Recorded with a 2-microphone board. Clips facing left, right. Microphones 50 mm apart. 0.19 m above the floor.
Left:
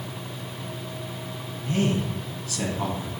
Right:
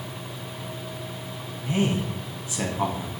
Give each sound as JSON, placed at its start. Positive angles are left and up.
{"t": 1.6, "sound": "a man speaking", "side_deg": -25, "distance_m": 1.1}